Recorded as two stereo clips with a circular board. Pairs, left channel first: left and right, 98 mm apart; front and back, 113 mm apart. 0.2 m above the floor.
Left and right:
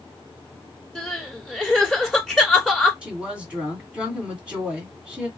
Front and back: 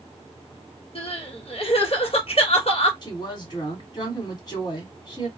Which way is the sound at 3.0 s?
15° right.